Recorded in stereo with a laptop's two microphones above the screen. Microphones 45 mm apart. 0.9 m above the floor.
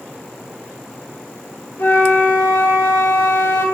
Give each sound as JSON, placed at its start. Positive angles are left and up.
{"t": 1.8, "sound": "a flute", "side_deg": 60, "distance_m": 3.0}